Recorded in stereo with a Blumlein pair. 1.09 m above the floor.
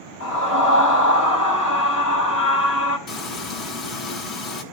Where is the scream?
65° left, 6.5 m.